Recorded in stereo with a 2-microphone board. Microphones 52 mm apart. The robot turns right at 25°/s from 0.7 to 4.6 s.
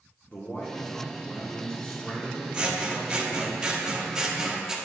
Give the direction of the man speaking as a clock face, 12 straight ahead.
8 o'clock.